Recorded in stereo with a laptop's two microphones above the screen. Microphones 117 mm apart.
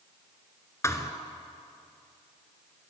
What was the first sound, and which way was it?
A thud, 25° left (ahead or behind).